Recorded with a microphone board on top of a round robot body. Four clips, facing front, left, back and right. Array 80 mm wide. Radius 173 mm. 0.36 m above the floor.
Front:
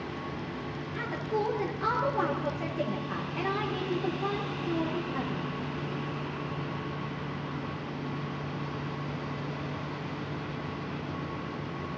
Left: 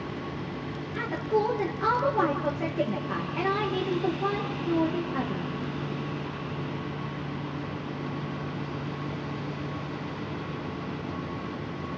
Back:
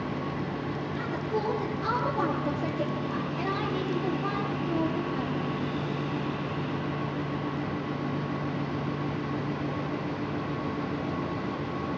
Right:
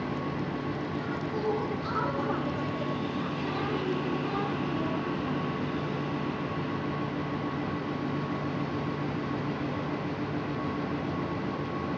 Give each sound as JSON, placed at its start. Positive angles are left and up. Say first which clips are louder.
{"t": 0.9, "sound": "a woman speaking", "louder": "left 5 dB, front 1 dB", "azimuth_deg": 75, "distance_m": 8.0}